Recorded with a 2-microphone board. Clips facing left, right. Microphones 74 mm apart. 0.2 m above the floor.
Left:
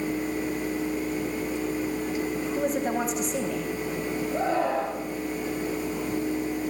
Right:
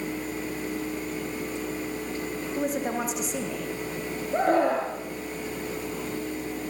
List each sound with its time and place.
2.4 s a woman speaking: 5° right (ahead or behind), 7.5 m
4.3 s a scream: 55° right (ahead or behind), 4 m